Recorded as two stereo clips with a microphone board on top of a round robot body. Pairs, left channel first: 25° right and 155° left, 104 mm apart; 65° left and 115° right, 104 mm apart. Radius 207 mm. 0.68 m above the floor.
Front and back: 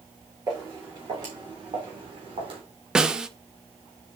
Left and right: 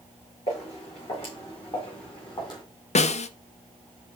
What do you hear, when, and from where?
0.5 s footsteps: 105° left, 4.5 m; by 2.6 s 120° left, 2 m
3.0 s a snare drum: 75° left, 0.6 m